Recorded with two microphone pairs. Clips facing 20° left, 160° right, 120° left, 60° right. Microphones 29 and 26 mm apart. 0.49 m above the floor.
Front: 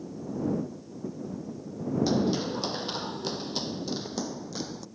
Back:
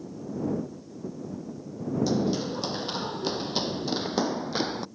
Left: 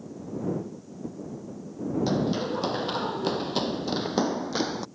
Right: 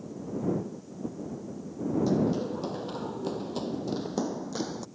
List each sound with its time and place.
2.1 s running footsteps: 95° left; by 4.9 s 170° left